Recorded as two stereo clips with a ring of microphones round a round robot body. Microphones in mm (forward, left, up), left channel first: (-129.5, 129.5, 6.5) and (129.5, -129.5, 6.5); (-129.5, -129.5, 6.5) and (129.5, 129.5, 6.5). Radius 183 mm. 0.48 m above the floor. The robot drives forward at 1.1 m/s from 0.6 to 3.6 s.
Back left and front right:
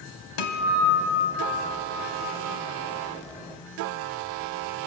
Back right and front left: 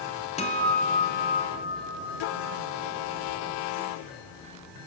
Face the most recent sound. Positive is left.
turn(degrees=170)